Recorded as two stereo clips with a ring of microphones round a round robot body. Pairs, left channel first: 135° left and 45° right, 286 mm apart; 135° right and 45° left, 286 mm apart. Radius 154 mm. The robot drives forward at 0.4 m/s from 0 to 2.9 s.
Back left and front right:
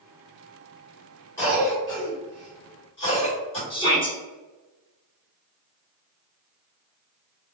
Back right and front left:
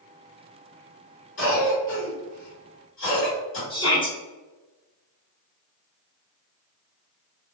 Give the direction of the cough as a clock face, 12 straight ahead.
5 o'clock.